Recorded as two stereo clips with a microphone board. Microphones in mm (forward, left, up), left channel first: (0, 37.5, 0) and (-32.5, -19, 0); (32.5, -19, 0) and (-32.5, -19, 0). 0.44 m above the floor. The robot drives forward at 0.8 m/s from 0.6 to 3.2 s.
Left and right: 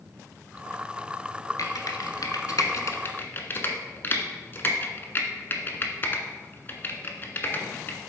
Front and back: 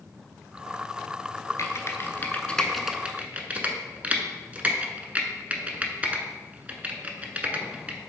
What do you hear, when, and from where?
1.6 s typing on a keyboard: 40° left, 1.2 m; by 8.0 s 115° left, 0.9 m